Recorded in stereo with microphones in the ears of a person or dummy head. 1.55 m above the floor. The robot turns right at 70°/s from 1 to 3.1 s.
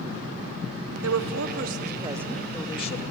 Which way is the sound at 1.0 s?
105° right.